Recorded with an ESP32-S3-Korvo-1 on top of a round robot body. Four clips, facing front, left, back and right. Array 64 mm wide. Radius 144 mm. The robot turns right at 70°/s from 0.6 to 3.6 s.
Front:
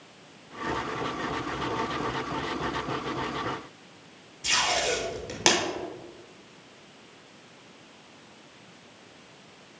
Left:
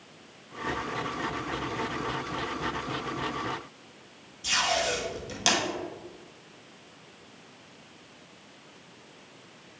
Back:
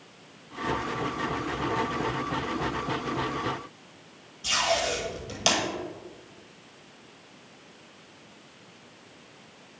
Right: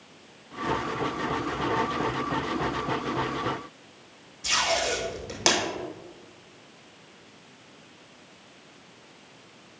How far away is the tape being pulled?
About 2.5 m.